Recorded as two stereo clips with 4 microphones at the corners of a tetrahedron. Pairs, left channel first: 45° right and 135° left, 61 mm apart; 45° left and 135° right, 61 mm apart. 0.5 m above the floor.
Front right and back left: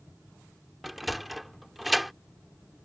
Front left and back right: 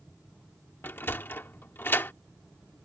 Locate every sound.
0.8 s a sliding door: 45° left